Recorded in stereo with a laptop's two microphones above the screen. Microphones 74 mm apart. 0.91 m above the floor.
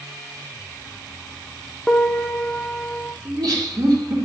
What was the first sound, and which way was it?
A piano, 5° left (ahead or behind).